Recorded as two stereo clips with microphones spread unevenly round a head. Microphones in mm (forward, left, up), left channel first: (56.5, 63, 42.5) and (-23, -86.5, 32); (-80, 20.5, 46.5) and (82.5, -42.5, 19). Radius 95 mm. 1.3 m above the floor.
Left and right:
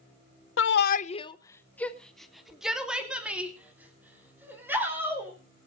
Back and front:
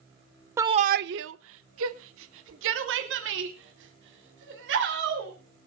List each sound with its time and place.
0.6 s a shout: 60° left, 0.6 m; by 5.3 s 40° right, 4.5 m